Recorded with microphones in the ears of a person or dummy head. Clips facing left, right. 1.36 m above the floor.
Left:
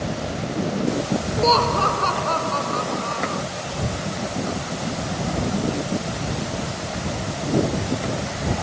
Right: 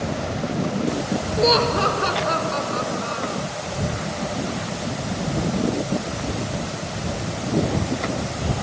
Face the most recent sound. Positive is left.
turn(degrees=-20)  # may be behind; listen again after turning